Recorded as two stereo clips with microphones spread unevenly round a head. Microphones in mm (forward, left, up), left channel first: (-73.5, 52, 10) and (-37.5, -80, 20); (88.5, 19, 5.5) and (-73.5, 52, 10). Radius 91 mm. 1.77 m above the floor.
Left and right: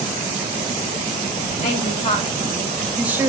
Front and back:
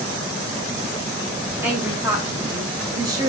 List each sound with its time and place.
1.6 s a woman speaking: 95° left, 0.9 m; by 3.3 s 130° right, 0.9 m